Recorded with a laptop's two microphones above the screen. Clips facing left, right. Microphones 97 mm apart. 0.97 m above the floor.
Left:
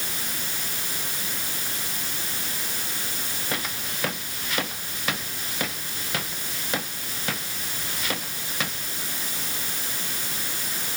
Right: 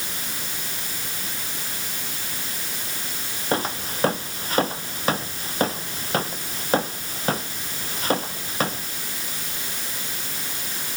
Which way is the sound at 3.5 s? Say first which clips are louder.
Right 9 dB; 35° right (ahead or behind).